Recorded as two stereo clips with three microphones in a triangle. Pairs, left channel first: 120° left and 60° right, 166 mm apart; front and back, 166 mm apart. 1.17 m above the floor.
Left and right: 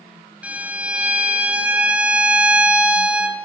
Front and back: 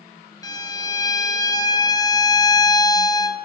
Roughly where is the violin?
Ahead.